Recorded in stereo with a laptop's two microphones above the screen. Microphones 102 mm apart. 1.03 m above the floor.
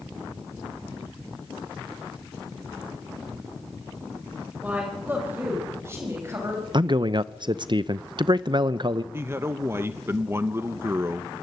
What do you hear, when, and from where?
4.6 s a woman speaking: 15° right (ahead or behind), 5 m; by 6.6 s 30° right (ahead or behind), 6.5 m
6.7 s a man speaking: 50° right (ahead or behind), 0.6 m
9.1 s a man speaking: 25° right (ahead or behind), 0.6 m